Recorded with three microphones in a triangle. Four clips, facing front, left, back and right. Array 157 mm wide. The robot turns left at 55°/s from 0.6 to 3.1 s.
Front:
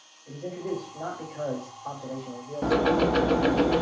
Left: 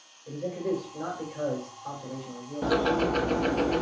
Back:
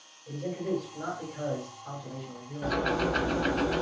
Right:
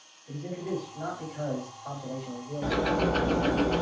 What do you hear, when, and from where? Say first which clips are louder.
0.3 s a man speaking: left 4 dB, back 1 dB; 100° left, 3 m; by 3.6 s 35° right, 3 m
2.6 s ticking: left 2 dB, front 6 dB; 25° left, 0.6 m; by 3.8 s straight ahead, 0.6 m